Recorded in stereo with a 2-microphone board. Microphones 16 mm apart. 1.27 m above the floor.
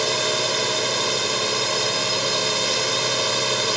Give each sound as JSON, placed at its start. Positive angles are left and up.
{"t": 0.0, "sound": "a drone", "side_deg": -5}